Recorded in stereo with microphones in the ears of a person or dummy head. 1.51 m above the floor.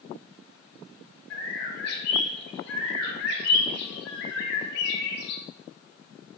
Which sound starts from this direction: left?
A bird, at 1.3 s.